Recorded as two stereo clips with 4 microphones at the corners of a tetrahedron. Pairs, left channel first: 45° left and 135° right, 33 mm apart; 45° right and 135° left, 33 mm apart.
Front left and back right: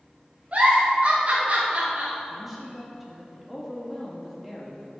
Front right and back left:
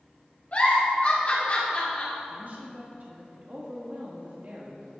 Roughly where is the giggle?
Right.